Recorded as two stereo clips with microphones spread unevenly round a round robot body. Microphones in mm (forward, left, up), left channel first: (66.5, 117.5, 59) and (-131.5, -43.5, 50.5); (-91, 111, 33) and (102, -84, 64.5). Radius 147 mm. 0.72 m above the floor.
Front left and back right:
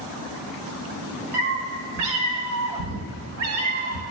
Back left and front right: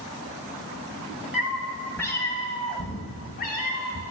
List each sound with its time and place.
1.3 s a cat meowing: 130° right, 1.8 m; by 4.0 s 170° right, 2 m